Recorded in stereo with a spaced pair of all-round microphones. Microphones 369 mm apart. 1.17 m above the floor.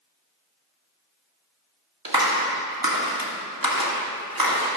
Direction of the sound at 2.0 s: 70° right (ahead or behind).